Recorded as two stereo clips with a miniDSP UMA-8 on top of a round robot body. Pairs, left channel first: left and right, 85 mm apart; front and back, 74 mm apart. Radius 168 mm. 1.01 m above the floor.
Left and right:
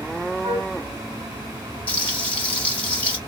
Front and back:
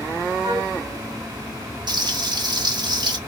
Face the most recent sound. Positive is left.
turn(degrees=160)